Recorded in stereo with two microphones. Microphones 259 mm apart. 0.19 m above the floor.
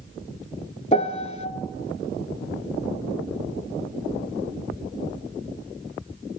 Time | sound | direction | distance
0.9 | a piano | 25° left (ahead or behind) | 0.6 m